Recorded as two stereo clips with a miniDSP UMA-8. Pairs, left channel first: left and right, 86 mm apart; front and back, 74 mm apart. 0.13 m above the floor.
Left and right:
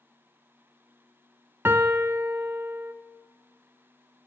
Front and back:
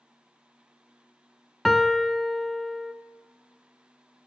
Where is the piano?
85° right, 0.5 m.